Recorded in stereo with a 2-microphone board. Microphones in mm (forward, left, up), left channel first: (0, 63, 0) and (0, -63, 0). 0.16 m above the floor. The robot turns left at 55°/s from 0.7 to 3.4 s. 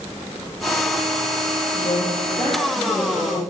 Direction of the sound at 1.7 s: 70° left.